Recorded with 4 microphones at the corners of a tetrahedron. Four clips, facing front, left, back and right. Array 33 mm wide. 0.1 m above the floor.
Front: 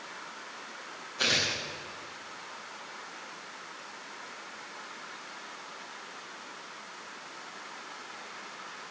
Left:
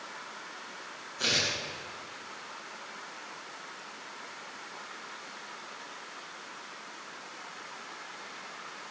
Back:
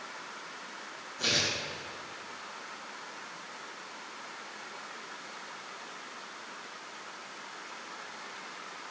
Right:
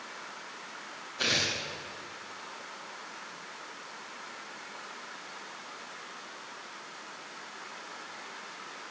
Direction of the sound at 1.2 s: 30° right.